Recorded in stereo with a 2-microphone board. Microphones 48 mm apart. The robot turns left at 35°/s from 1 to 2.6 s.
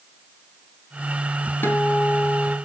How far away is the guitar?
About 2.5 m.